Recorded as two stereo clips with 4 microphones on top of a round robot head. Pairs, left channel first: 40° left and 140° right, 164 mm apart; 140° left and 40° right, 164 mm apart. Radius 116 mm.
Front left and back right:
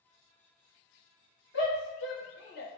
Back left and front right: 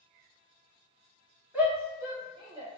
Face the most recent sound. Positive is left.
turn(degrees=15)